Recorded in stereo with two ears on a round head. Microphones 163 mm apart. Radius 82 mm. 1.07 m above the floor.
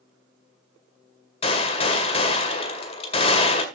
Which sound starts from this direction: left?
A gunshot, at 1.4 s.